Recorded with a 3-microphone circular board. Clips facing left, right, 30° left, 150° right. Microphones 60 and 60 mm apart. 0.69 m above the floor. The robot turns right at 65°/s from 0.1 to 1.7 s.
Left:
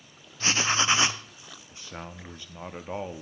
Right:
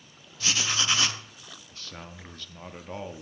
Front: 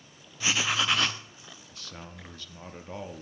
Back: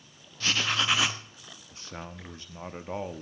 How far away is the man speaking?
About 0.8 m.